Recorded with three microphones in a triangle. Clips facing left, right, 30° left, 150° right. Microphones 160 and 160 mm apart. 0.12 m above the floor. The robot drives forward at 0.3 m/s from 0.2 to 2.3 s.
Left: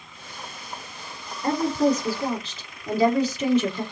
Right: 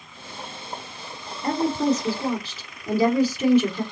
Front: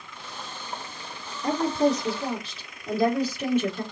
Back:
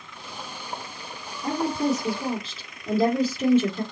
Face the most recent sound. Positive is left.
turn(degrees=-165)